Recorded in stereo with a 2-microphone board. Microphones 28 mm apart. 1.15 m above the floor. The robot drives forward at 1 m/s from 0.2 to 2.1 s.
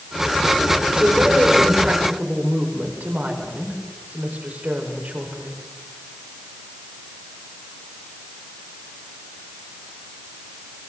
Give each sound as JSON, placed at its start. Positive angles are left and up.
{"t": 0.9, "sound": "a woman speaking", "side_deg": -65, "distance_m": 5.0}